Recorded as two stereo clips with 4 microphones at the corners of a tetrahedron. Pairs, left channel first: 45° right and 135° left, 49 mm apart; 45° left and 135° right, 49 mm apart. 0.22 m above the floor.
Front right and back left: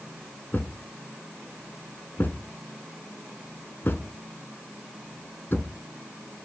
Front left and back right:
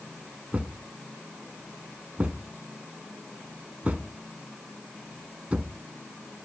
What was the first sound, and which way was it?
A thud, 80° right.